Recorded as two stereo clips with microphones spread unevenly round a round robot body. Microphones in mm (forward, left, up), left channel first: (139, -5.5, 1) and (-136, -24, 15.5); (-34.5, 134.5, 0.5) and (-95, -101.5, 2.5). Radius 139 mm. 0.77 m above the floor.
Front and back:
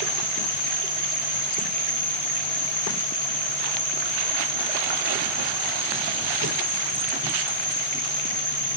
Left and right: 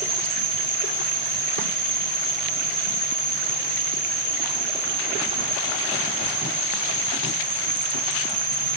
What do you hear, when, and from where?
0.0 s an insect: 90° left, 4 m